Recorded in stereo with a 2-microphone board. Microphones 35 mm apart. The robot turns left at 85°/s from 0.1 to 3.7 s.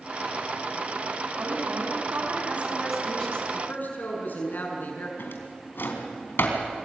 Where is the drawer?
85° left, 3.5 m.